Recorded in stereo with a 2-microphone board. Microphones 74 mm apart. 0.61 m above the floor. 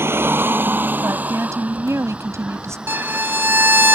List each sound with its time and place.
0.0 s a vehicle: 30° right (ahead or behind); by 4.0 s 5° right (ahead or behind)
1.0 s a woman speaking: 40° right (ahead or behind)
2.9 s a violin: 30° right (ahead or behind)